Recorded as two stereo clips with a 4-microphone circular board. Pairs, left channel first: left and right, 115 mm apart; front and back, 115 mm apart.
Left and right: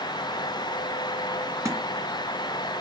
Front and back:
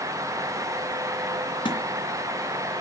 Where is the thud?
35° right, 2.5 m.